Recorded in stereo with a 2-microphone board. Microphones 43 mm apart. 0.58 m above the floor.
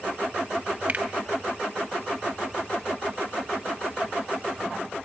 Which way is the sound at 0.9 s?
40° right (ahead or behind).